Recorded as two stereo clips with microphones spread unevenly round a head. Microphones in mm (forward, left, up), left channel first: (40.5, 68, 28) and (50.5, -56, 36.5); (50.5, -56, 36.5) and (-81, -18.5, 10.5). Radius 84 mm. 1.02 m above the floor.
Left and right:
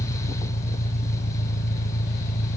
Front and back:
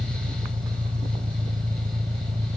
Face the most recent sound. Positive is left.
turn(degrees=100)